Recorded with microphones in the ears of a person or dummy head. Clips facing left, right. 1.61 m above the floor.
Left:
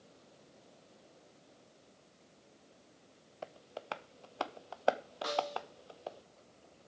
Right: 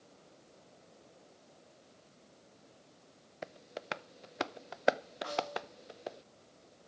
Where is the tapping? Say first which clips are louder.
Right 1 dB; 25° right (ahead or behind), 0.6 m.